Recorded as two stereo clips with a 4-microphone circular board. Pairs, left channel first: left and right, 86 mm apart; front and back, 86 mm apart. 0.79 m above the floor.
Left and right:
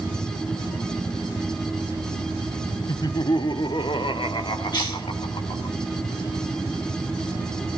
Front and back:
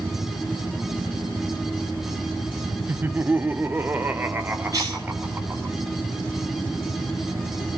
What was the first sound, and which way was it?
Laughter, 120° left.